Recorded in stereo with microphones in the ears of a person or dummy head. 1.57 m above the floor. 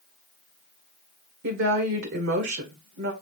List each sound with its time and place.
1.4 s a woman speaking: 60° right (ahead or behind), 1.6 m